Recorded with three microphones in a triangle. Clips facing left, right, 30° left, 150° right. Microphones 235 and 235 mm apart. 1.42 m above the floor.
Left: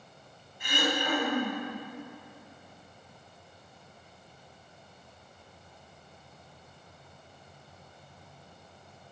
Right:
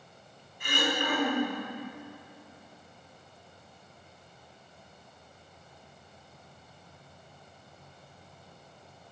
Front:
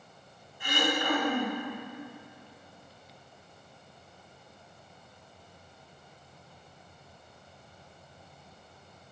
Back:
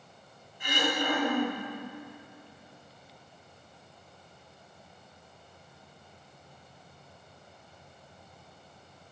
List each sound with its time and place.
0.6 s throat clearing: 80° right, 2.5 m